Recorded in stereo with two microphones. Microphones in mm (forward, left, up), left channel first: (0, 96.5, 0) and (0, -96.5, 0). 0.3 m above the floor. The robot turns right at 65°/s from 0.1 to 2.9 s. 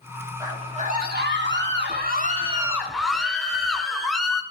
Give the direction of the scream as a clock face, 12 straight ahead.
5 o'clock.